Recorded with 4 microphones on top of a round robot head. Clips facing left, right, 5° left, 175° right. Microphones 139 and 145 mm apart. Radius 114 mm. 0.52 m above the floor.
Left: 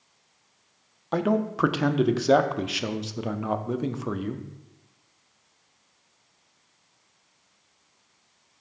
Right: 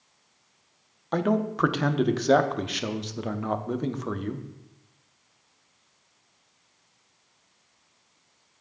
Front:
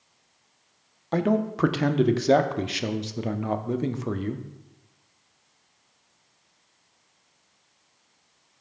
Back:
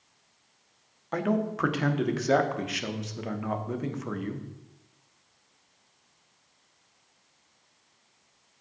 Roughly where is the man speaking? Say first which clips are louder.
Left 1 dB, front 4 dB; ahead.